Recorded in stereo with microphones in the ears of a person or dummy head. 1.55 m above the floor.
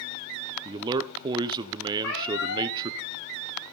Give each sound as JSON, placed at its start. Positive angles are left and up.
{"t": 0.7, "sound": "a man speaking", "side_deg": -20, "distance_m": 0.6}
{"t": 2.0, "sound": "a cat meowing", "side_deg": 80, "distance_m": 4.5}